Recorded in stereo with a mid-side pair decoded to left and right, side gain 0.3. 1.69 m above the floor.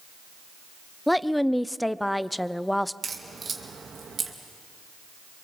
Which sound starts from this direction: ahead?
A woman speaking, at 1.1 s.